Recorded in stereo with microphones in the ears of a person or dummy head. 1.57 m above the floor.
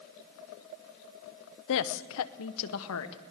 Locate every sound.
1.7 s a woman speaking: 70° left (ahead or behind), 0.8 m